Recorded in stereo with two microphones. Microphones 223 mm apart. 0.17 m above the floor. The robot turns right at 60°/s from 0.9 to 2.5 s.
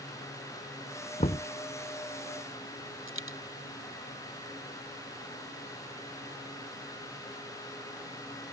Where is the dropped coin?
70° right (ahead or behind).